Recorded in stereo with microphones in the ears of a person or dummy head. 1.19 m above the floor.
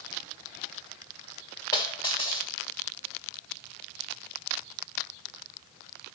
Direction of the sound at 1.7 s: 20° left (ahead or behind).